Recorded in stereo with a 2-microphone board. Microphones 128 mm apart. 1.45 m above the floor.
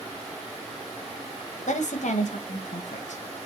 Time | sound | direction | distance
1.7 | a woman speaking | 70° left (ahead or behind) | 1.0 m